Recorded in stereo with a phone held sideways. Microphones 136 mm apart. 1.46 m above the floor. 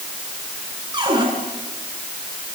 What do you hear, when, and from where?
0.9 s a cupboard door: 35° right (ahead or behind), 7.5 m